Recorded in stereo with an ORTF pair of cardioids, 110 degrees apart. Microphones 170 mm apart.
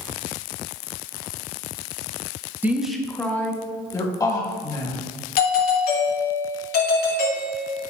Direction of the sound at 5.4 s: 65° left.